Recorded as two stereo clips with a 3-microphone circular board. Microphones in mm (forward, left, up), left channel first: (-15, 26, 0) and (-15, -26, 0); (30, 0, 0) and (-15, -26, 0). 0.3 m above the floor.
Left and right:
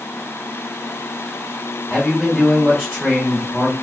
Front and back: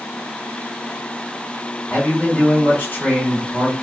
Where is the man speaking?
Straight ahead, 1.9 m.